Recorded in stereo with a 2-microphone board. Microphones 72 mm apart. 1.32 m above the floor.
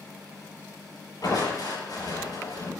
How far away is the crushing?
About 6.5 m.